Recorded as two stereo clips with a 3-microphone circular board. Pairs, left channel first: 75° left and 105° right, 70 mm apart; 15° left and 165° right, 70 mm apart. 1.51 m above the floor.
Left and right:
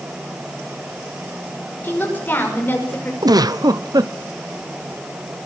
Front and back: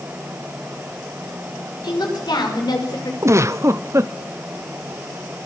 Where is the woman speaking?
10° left, 5.5 m.